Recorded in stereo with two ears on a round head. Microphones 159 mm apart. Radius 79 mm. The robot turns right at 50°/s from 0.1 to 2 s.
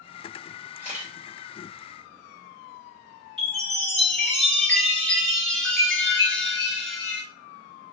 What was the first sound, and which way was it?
A camera shutter, 15° right (ahead or behind).